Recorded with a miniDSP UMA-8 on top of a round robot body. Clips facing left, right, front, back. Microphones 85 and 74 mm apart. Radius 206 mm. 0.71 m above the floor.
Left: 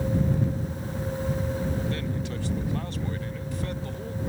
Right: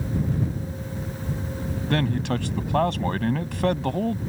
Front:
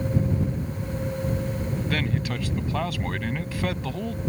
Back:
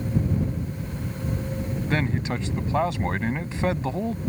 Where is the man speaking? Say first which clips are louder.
Right 7 dB, back 4 dB; 115° right.